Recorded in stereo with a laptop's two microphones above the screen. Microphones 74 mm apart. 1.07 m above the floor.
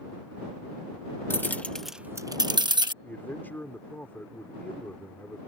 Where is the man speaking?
25° left (ahead or behind).